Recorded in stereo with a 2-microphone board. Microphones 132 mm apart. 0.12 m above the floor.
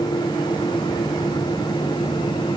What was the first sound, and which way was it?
Only background noise.